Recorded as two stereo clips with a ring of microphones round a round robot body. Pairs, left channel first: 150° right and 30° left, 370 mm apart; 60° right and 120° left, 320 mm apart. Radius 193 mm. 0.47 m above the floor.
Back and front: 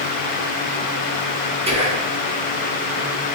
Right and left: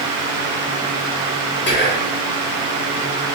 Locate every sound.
1.7 s whispering: 35° right, 1.6 m